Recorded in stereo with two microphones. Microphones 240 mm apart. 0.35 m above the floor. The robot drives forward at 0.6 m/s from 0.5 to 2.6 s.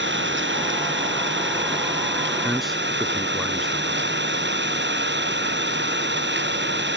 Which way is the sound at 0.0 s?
50° right (ahead or behind).